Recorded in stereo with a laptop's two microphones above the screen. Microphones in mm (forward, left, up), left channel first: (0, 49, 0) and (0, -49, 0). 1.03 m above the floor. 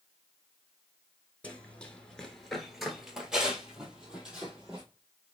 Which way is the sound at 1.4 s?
15° left (ahead or behind).